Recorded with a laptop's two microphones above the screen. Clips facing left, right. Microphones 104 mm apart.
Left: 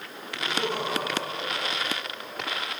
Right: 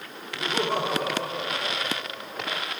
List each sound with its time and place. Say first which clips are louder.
0.4 s laughter: right 3 dB; 70° right (ahead or behind), 3 m; by 2.6 s 85° right, 5 m